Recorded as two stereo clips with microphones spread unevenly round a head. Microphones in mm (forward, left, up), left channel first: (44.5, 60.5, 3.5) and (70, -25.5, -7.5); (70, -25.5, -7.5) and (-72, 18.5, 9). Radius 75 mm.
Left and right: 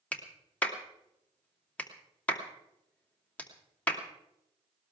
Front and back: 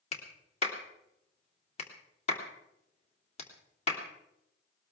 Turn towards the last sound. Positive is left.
turn(degrees=35)